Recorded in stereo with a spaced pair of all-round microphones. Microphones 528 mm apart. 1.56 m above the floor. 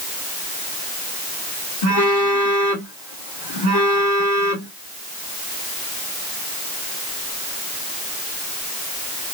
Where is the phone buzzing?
50° left (ahead or behind), 2.5 m.